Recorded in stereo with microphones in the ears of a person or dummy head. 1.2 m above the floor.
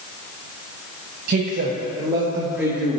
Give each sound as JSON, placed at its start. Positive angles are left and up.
{"t": 1.3, "sound": "a man speaking", "side_deg": -55, "distance_m": 0.8}